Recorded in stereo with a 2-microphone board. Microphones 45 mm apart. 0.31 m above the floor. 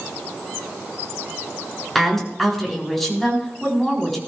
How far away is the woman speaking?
About 4 m.